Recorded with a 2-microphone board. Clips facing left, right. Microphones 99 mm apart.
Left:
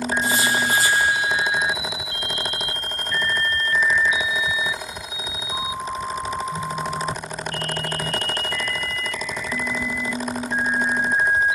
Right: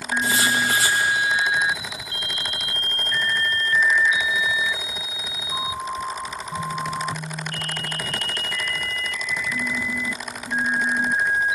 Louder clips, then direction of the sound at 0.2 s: Right 2 dB; 75° right (ahead or behind).